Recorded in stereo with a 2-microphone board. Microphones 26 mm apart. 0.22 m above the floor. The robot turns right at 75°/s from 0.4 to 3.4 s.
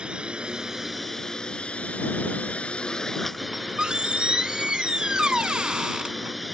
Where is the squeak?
40° right (ahead or behind).